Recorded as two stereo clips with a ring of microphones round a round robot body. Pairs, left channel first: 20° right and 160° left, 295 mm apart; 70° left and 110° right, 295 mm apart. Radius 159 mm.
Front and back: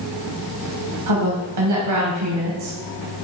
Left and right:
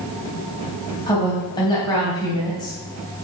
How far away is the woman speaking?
About 3 m.